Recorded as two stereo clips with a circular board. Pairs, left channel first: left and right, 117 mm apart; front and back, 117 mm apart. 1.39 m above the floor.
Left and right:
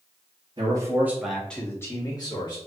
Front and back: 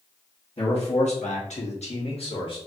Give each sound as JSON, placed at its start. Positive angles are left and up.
{"t": 0.6, "sound": "a man speaking", "azimuth_deg": -40, "distance_m": 1.2}